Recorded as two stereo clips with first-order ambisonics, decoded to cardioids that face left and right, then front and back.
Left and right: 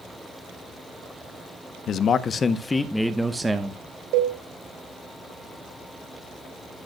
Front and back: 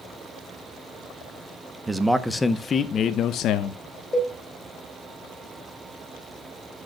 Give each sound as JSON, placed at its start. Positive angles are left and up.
{"t": 1.9, "sound": "a man speaking", "azimuth_deg": 105, "distance_m": 0.8}
{"t": 4.1, "sound": "a cowbell", "azimuth_deg": -80, "distance_m": 4.5}